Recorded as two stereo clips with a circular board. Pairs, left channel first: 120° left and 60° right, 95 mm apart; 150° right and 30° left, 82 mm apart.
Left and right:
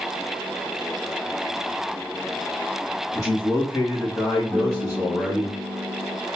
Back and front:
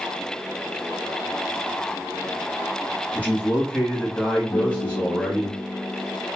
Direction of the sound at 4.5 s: 150° right.